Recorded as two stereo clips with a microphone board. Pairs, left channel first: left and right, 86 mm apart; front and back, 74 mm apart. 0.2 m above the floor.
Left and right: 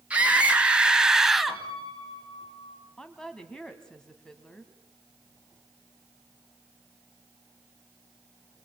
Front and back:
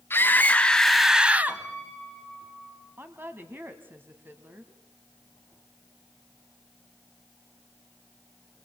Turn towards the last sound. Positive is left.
turn(degrees=165)